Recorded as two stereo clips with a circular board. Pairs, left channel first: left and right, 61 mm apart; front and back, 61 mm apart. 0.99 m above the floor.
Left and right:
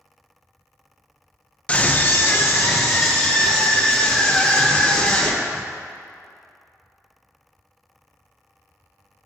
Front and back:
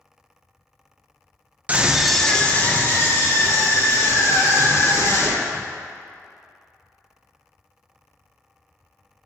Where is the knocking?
No knocking in this recording.